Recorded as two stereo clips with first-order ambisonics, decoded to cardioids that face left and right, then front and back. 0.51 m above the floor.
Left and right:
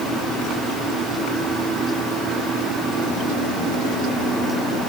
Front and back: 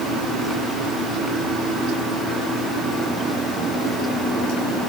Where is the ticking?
I don't hear ticking.